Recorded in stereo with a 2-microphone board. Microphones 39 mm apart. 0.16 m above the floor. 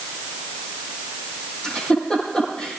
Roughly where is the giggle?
Left.